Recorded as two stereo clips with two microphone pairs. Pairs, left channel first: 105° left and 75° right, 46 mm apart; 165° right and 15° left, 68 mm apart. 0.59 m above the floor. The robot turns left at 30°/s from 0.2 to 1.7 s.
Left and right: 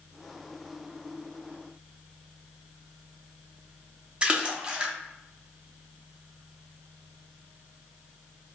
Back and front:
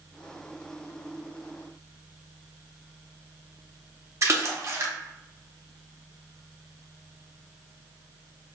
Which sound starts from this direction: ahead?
A splash, at 4.2 s.